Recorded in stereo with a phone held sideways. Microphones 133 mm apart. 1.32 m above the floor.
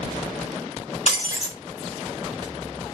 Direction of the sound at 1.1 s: 55° left (ahead or behind).